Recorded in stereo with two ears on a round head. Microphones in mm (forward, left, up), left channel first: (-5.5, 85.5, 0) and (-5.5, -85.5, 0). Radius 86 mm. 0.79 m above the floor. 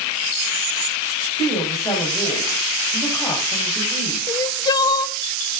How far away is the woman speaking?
About 4 m.